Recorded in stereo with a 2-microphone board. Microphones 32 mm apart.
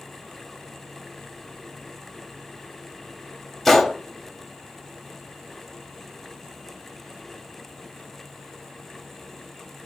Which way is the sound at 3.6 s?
10° left (ahead or behind).